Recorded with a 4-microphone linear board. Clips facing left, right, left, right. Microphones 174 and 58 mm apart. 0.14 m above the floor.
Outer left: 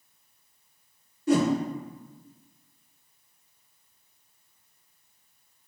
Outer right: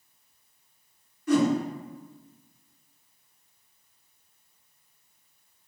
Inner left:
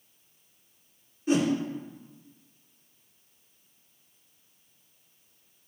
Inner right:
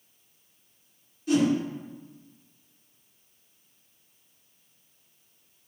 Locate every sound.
1.3 s a whoosh: 30° left (ahead or behind), 2.0 m